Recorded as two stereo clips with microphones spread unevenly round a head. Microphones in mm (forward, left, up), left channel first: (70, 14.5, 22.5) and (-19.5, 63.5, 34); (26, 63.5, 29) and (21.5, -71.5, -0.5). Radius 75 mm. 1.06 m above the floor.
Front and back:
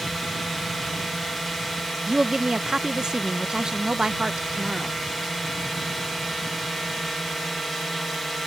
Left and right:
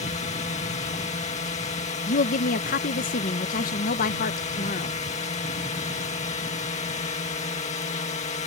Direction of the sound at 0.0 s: 60° left.